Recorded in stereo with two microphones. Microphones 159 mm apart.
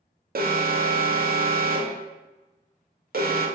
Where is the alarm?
70° right (ahead or behind), 0.5 m.